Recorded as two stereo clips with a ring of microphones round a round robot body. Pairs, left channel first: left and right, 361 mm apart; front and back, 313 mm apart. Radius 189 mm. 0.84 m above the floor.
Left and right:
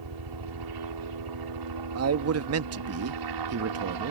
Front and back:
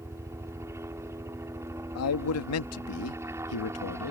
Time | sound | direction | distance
0.0 | a helicopter | 100° right | ?
1.9 | a man speaking | 40° right | ?